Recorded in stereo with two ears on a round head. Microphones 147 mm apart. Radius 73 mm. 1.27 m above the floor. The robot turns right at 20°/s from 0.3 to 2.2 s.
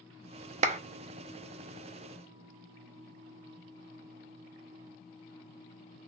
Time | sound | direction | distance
0.6 | a clap | 40° right (ahead or behind) | 0.5 m